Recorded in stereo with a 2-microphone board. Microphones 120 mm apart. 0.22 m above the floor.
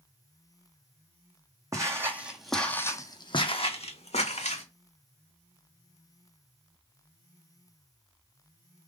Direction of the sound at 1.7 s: 30° right (ahead or behind).